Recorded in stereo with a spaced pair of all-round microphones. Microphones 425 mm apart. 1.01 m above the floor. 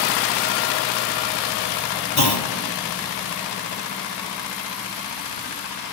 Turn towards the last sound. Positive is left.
turn(degrees=60)  # may be behind; listen again after turning